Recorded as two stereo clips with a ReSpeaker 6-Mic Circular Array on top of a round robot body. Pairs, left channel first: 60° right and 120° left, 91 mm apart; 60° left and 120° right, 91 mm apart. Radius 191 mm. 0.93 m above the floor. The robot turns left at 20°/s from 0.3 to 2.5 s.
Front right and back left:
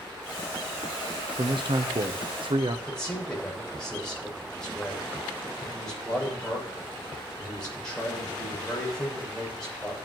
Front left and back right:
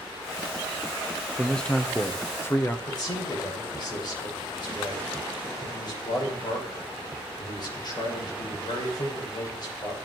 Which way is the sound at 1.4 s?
145° left.